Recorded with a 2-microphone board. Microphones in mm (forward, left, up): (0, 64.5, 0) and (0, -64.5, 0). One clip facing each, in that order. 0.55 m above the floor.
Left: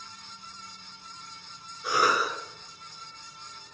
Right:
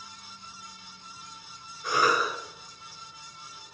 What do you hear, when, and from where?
1.8 s a cough: 5° left (ahead or behind), 1.3 m